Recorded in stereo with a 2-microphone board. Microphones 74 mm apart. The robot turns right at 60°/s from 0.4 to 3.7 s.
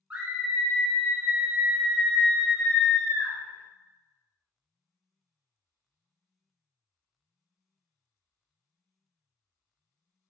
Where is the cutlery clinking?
No cutlery clinking in this recording.